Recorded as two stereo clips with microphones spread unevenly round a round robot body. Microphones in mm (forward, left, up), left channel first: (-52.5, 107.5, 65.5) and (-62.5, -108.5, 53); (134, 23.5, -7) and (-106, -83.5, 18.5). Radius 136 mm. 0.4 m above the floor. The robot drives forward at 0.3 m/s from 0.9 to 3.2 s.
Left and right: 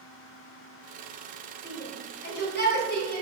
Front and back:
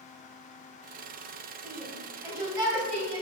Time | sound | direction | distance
1.6 | a shout | 120° left | 2.5 m